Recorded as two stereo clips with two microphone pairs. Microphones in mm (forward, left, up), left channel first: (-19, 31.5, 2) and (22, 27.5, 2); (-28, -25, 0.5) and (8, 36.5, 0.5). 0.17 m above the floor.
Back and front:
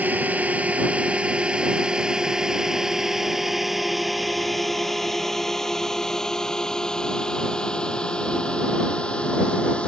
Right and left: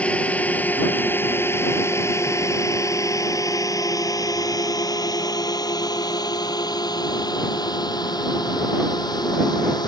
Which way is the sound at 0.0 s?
50° right.